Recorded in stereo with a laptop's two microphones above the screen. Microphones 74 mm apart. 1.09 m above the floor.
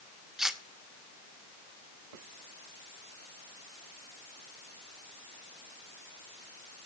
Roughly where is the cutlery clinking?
Centre.